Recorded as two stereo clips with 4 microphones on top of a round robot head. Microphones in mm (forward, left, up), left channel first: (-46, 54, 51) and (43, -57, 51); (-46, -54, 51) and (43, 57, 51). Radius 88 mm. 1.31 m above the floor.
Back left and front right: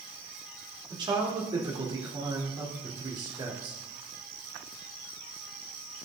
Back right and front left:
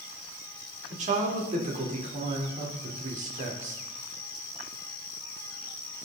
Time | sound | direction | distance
0.9 | a man speaking | 10° left | 4 m